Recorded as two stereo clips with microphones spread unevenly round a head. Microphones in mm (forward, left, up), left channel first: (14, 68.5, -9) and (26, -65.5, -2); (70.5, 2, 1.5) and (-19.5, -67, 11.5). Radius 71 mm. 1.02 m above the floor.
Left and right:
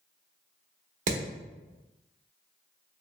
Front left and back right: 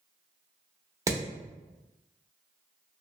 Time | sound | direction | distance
1.1 | hammering | 85° right | 1.0 m